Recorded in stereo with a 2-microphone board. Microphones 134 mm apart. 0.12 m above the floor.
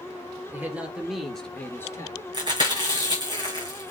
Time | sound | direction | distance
0.5 | a man speaking | 15° right (ahead or behind) | 3 m
2.3 | chewing | 30° right (ahead or behind) | 4 m